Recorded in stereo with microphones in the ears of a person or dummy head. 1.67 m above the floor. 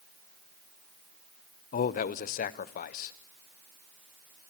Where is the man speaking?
35° left (ahead or behind), 0.6 m.